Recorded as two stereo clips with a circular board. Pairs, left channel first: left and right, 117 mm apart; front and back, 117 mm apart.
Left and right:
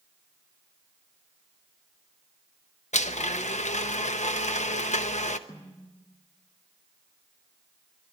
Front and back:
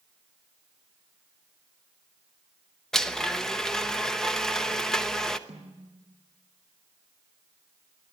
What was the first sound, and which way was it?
A blender, 85° left.